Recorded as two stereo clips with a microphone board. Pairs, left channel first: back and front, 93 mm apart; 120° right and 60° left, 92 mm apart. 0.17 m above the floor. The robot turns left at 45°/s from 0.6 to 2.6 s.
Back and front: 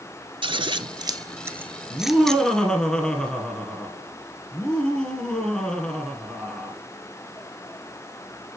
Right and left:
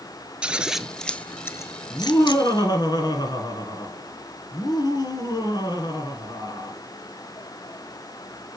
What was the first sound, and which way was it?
Scissors, 20° right.